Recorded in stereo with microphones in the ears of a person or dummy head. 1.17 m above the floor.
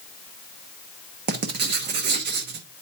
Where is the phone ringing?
I don't hear a phone ringing.